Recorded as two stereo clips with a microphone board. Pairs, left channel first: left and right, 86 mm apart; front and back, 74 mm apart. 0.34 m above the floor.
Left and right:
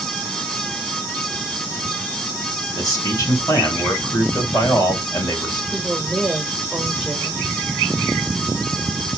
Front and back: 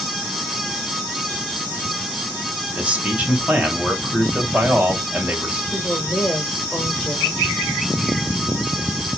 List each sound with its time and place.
2.8 s a man speaking: 115° left, 1.4 m
5.7 s a woman speaking: 20° right, 0.9 m